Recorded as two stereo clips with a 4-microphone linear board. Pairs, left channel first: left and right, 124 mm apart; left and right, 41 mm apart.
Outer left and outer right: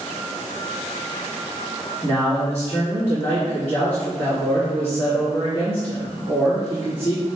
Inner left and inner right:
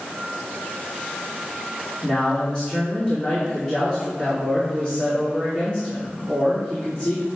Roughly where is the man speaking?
Left.